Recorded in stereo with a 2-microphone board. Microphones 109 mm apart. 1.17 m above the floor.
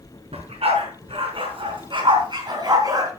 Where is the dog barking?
65° right (ahead or behind), 5 m; by 3.1 s 30° right (ahead or behind), 4 m.